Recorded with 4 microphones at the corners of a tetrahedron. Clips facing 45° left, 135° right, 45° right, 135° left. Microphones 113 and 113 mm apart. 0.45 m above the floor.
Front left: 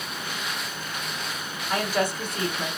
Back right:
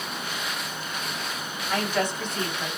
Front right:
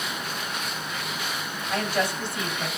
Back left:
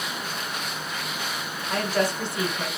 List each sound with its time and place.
1.7 s a woman speaking: 125° left, 1.8 m